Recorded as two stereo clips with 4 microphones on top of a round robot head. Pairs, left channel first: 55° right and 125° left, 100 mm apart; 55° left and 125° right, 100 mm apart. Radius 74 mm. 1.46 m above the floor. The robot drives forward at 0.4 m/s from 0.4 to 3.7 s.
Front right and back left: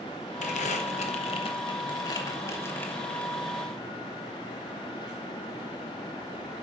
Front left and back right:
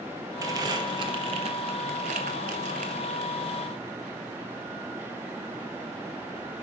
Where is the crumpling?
65° right, 1.0 m; by 3.3 s 135° right, 1.2 m.